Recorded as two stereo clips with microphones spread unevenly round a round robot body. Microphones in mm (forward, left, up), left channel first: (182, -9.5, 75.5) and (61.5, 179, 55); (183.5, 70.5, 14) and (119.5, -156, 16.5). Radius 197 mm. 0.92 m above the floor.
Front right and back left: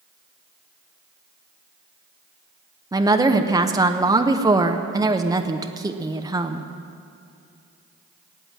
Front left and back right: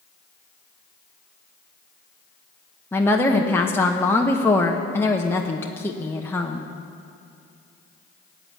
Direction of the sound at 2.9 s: 135° left.